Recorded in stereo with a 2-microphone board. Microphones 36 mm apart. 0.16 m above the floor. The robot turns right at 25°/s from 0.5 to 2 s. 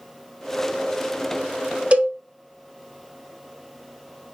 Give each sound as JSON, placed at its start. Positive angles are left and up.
{"t": 1.9, "sound": "a cowbell", "side_deg": -40, "distance_m": 0.6}